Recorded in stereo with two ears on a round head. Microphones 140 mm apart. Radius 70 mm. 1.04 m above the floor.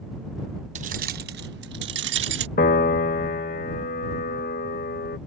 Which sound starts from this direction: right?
Keys jangling, at 0.8 s.